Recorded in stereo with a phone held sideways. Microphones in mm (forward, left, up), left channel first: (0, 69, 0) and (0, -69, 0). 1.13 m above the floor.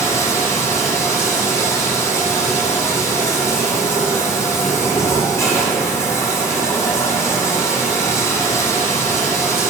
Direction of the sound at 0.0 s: 20° left (ahead or behind).